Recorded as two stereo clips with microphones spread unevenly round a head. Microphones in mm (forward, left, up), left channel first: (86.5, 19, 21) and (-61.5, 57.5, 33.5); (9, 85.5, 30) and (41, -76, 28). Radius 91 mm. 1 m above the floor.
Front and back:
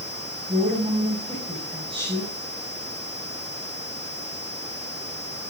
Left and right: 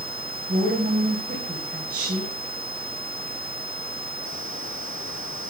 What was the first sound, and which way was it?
A woman speaking, 130° right.